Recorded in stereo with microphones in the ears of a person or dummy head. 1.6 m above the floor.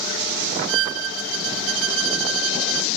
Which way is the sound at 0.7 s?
75° right (ahead or behind).